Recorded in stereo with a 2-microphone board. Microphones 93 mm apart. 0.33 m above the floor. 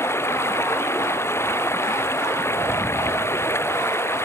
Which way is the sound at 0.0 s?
25° left (ahead or behind).